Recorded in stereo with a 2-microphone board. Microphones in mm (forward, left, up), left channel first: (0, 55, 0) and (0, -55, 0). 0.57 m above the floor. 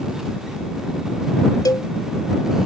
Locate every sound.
1.6 s a cowbell: 35° left (ahead or behind)